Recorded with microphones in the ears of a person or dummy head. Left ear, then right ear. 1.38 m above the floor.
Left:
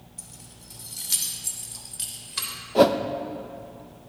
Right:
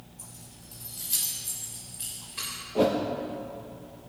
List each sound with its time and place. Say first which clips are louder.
0.2 s keys jangling: left 4 dB; 75° left (ahead or behind), 2.5 m; by 2.5 s 60° left (ahead or behind), 3 m
2.8 s a whoosh: left 7 dB; 60° left (ahead or behind), 0.8 m